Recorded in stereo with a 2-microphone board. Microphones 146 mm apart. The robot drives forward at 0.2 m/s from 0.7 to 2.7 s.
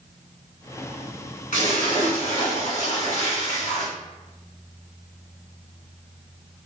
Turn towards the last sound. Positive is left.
turn(degrees=60)  # may be behind; listen again after turning